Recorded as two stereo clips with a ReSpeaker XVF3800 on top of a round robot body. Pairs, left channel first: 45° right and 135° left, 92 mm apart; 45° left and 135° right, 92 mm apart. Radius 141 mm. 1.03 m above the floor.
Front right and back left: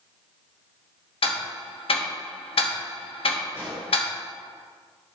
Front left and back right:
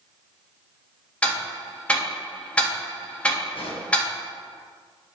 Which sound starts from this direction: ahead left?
A pop, at 3.5 s.